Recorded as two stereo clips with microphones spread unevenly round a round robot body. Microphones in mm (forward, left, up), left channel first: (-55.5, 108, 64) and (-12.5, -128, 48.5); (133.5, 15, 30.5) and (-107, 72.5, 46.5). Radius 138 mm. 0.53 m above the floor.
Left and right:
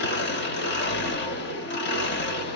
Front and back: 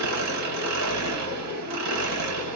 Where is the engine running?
145° left, 1.2 m.